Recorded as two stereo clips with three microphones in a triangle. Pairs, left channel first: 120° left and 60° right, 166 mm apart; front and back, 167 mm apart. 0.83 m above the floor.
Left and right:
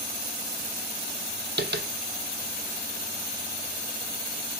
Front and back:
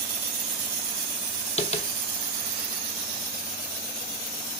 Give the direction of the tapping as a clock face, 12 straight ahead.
2 o'clock.